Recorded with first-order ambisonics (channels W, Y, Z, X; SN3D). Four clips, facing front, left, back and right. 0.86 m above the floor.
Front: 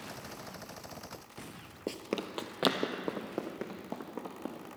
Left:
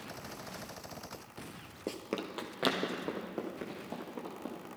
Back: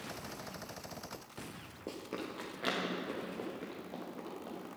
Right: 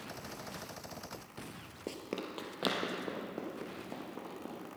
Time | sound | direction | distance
1.9 | running footsteps | 20° left | 0.9 m